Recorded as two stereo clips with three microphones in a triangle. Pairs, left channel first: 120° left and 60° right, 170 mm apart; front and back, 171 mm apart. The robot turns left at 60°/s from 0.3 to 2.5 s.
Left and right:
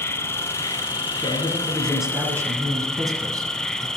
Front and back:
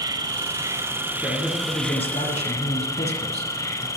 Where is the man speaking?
75° left, 1.9 m; by 3.9 s straight ahead, 1.9 m.